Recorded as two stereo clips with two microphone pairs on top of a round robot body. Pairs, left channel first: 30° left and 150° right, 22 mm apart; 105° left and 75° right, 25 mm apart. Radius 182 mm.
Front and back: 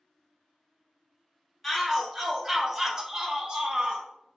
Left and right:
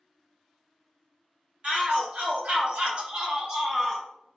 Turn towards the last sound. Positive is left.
turn(degrees=-155)